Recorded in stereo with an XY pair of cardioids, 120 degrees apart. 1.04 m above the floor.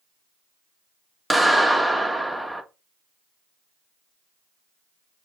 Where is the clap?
10° left, 1.8 m.